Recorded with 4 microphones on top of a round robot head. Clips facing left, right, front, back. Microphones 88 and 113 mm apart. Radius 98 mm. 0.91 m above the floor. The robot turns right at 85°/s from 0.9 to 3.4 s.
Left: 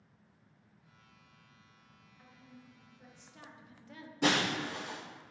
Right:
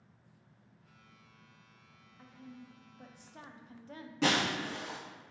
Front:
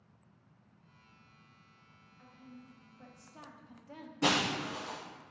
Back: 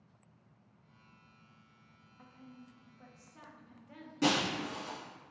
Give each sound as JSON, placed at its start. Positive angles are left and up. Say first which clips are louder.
{"t": 2.2, "sound": "a woman speaking", "louder": "right 6 dB, front 1 dB", "azimuth_deg": -150, "distance_m": 0.6}
{"t": 4.2, "sound": "breaking glass", "louder": "even, even", "azimuth_deg": -140, "distance_m": 1.8}